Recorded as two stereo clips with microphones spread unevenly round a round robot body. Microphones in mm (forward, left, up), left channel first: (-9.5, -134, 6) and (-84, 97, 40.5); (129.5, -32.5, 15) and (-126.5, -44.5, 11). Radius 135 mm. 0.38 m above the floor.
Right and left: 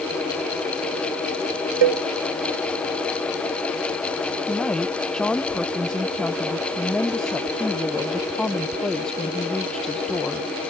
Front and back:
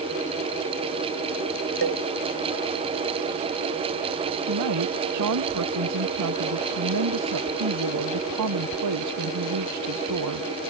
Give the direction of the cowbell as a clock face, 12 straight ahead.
8 o'clock.